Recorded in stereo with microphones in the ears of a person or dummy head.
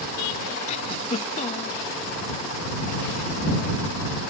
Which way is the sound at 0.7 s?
40° left (ahead or behind).